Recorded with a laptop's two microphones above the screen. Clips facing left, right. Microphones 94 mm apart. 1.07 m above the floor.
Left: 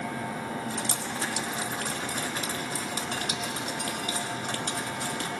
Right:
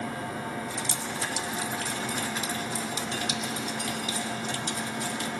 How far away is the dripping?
About 1.6 m.